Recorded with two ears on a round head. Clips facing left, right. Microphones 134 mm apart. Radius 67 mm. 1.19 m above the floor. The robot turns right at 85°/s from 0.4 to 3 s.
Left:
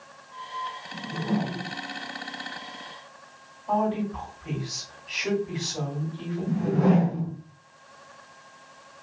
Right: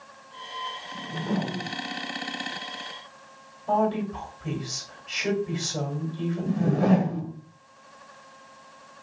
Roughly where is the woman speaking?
Right.